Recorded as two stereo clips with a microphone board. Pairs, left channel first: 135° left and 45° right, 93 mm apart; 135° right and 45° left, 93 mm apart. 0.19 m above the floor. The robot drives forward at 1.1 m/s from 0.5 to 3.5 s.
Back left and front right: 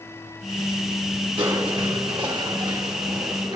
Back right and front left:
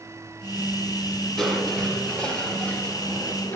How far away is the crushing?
About 5 m.